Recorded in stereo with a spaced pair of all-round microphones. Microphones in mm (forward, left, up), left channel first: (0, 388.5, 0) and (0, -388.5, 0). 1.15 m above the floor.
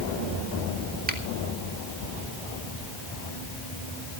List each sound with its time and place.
1.1 s a finger snap: 10° right (ahead or behind), 2 m